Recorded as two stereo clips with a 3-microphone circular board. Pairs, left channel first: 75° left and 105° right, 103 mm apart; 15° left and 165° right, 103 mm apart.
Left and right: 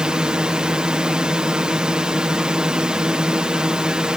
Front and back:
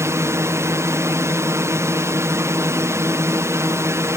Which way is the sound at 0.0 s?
Straight behind.